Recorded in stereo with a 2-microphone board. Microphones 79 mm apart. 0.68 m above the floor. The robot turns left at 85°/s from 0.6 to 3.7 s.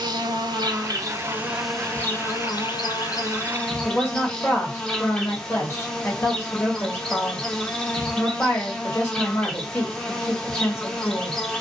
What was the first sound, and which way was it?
An insect, 85° right.